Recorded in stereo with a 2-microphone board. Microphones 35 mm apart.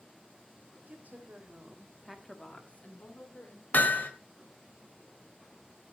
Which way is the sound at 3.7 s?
55° left (ahead or behind).